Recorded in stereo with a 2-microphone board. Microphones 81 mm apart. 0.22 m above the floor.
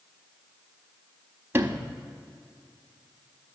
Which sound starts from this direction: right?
A sliding door, at 1.5 s.